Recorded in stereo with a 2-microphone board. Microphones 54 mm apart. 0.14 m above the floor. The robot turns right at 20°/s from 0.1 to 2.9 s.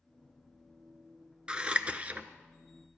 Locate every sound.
1.5 s scissors: 20° right (ahead or behind), 0.6 m; by 2.3 s 30° right (ahead or behind), 0.6 m